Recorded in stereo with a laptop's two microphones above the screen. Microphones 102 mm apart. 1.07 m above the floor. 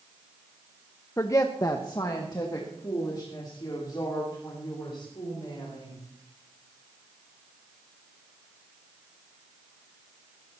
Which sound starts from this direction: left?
A woman speaking, at 1.2 s.